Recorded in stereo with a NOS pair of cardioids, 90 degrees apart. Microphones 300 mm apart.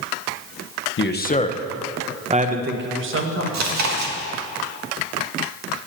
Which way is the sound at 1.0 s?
40° left.